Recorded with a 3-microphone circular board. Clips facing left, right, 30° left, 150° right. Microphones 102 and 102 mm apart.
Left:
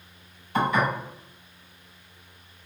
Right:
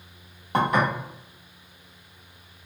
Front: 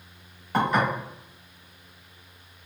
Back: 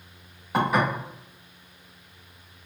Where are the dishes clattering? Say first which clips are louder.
Right 1 dB, even; 65° right, 1.3 m.